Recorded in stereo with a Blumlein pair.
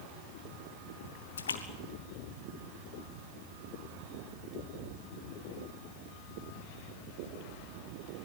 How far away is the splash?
About 2 m.